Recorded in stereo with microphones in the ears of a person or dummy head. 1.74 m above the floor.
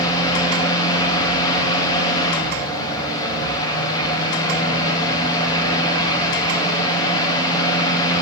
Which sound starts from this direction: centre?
A fan, at 0.0 s.